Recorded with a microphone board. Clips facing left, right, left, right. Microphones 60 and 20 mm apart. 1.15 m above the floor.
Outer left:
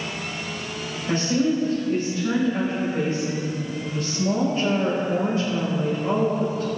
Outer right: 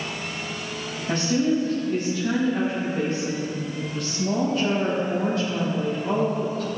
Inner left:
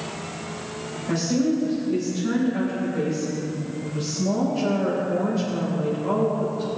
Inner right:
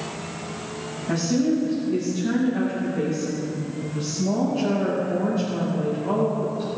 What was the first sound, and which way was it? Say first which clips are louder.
A woman speaking: even, inner right 1 dB; 30° left (ahead or behind).